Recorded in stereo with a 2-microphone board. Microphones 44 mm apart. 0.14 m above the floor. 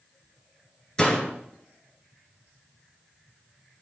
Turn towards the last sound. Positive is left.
turn(degrees=20)  # may be behind; listen again after turning